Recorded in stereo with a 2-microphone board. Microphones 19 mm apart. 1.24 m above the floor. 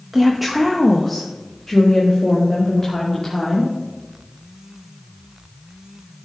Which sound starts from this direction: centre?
A woman speaking, at 0.1 s.